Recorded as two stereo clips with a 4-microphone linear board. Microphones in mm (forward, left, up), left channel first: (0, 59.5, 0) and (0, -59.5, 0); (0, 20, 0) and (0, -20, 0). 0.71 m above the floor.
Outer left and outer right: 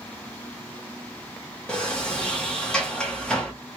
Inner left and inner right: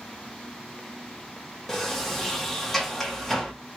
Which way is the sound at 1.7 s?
10° left (ahead or behind).